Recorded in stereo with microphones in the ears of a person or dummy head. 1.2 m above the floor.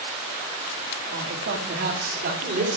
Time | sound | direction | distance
1.1 | a man speaking | 60° right (ahead or behind) | 2.5 m